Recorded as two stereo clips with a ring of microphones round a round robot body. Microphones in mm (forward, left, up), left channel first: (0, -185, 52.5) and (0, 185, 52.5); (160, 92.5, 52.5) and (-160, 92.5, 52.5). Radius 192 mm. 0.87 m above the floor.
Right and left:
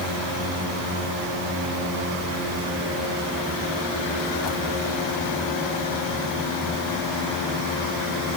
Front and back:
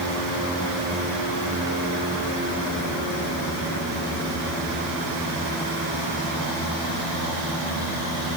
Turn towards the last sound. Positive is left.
No sound to turn to.